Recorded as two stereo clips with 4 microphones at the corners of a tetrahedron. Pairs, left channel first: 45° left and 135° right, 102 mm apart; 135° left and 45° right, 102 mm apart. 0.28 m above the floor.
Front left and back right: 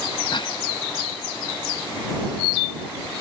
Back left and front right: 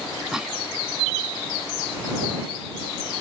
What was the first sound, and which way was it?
A cough, 35° left.